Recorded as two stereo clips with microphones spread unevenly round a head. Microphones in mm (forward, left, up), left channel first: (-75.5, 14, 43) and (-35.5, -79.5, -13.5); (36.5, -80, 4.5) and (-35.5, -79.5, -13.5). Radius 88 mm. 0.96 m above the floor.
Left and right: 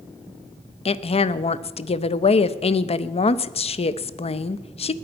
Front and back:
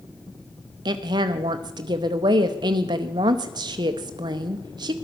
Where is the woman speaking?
150° left, 0.7 m.